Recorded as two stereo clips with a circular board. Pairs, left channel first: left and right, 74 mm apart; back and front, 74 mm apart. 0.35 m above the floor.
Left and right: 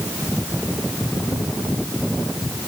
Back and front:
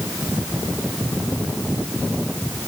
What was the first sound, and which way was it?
Only background noise.